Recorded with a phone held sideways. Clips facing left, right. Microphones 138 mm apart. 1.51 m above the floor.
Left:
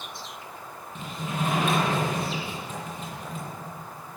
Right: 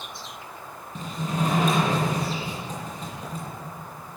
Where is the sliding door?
40° right (ahead or behind), 9.5 m.